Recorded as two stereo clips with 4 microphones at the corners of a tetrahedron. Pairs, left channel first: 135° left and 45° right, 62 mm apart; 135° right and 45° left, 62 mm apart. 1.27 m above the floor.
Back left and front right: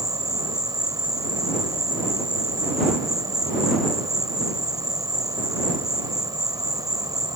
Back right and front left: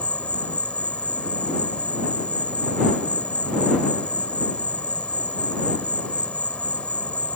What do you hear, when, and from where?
0.0 s an insect: 65° right